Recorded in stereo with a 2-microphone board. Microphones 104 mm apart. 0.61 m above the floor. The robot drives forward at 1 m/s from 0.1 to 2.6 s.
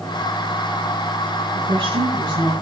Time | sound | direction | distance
1.5 | a woman speaking | 60° right (ahead or behind) | 9 m